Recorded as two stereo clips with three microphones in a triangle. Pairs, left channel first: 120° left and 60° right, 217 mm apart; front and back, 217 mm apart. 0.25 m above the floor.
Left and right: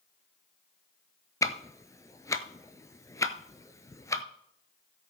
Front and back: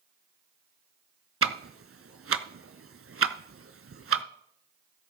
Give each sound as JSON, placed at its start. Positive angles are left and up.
{"t": 1.4, "sound": "ticking", "azimuth_deg": -165, "distance_m": 0.5}